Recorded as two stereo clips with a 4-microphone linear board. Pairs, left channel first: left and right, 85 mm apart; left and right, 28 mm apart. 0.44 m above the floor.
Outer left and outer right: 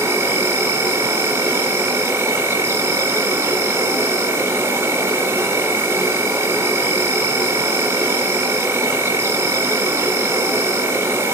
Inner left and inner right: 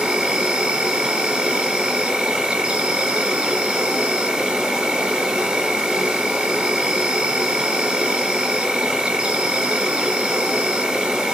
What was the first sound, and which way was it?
An insect, 30° right (ahead or behind).